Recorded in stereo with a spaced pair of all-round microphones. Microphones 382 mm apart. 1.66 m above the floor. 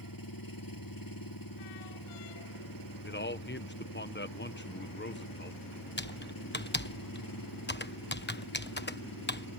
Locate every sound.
0.0 s an engine running: 60° left (ahead or behind)
3.0 s a man speaking: 25° left (ahead or behind)
6.0 s typing on a keyboard: 25° left (ahead or behind)